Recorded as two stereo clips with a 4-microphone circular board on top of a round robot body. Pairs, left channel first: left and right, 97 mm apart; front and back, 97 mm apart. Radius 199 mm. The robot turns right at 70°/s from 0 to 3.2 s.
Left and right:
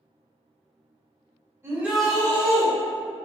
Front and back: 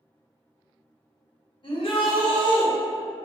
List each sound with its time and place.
1.6 s a shout: 25° right, 1.2 m; by 2.7 s 45° left, 1.2 m